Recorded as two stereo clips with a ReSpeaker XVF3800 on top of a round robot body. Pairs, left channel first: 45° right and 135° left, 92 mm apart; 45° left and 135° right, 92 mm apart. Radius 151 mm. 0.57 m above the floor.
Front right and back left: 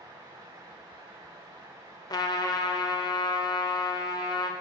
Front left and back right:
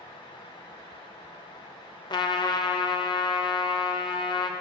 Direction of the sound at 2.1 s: 5° left.